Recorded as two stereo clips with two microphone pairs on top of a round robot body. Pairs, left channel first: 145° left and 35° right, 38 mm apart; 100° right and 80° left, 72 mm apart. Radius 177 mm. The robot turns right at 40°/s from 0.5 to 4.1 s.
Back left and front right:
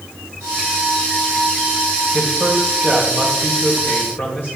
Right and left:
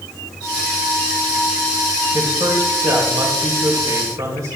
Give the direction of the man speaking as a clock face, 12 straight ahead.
11 o'clock.